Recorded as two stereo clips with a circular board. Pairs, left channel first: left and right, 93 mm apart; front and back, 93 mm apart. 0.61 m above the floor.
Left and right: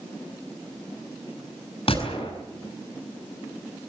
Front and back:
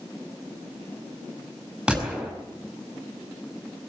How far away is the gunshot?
About 6.5 m.